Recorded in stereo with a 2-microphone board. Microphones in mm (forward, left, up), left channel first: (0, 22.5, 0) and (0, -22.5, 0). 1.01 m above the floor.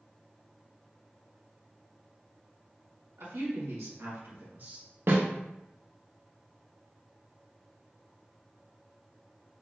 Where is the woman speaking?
80° right, 1.6 m; by 4.9 s 30° right (ahead or behind), 0.9 m.